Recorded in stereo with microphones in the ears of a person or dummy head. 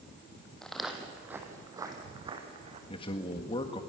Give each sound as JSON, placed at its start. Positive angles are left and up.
{"t": 0.6, "sound": "footsteps", "side_deg": 10, "distance_m": 2.5}
{"t": 2.9, "sound": "a man speaking", "side_deg": 30, "distance_m": 1.8}